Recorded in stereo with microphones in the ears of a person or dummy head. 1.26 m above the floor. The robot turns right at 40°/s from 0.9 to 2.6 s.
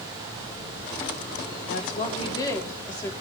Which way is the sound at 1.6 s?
125° left.